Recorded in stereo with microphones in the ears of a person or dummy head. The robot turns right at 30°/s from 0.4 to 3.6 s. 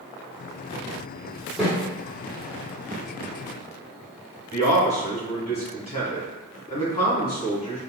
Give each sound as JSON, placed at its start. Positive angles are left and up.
{"t": 1.6, "sound": "a snare drum", "side_deg": 0, "distance_m": 1.4}
{"t": 4.5, "sound": "a man speaking", "side_deg": 30, "distance_m": 1.5}